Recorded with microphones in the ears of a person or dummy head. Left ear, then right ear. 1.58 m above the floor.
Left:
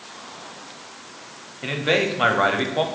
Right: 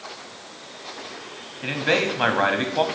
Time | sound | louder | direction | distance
1.6 | a man speaking | left 1 dB | 5° right (ahead or behind) | 0.6 m